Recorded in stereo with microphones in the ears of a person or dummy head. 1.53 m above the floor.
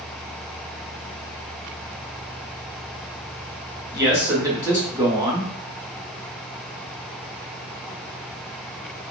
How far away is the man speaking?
About 1.0 m.